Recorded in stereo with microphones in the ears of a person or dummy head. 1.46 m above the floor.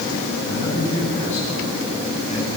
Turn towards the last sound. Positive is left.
turn(degrees=30)  # may be behind; listen again after turning